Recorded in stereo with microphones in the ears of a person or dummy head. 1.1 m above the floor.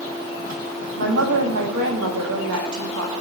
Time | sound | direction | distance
1.0 | a woman speaking | 70° right (ahead or behind) | 1.4 m